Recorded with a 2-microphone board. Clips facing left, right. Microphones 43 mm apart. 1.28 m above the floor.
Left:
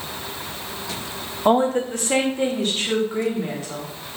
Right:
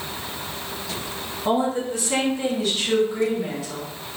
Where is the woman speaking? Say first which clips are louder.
Left 4 dB; 45° left (ahead or behind), 0.6 m; by 3.9 s 40° left (ahead or behind), 1.9 m.